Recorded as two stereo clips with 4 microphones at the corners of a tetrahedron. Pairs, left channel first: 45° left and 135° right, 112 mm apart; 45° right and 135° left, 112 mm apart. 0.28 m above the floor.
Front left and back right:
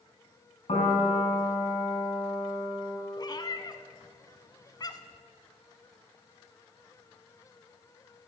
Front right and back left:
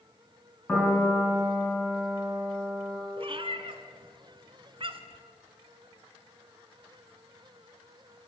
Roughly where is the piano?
Ahead left.